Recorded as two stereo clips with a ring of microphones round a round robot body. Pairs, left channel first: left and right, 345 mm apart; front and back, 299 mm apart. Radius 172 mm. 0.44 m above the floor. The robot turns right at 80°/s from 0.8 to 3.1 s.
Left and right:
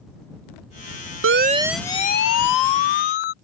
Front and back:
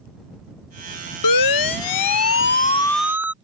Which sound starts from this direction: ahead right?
A siren, at 1.2 s.